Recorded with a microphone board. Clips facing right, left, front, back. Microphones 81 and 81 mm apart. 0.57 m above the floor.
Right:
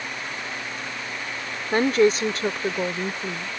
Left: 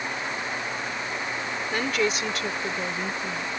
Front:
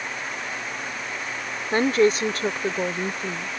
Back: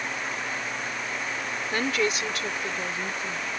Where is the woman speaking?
50° right; by 3.5 s 35° right.